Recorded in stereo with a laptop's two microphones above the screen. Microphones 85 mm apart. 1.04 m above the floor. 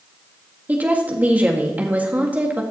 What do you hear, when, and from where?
0.7 s a woman speaking: 20° right (ahead or behind), 1.7 m